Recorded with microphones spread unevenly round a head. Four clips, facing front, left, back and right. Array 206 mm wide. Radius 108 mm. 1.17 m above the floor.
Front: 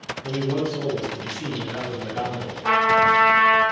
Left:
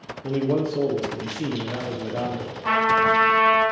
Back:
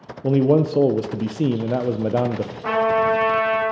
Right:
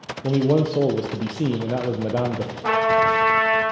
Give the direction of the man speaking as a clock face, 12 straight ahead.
5 o'clock.